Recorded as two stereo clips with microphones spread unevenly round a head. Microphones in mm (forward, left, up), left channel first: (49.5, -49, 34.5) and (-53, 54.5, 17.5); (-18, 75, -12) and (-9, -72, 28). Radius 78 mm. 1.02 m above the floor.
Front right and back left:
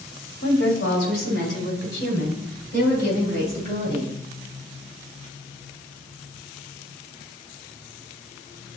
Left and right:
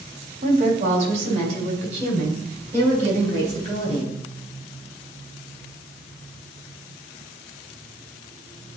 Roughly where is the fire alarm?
I don't hear a fire alarm.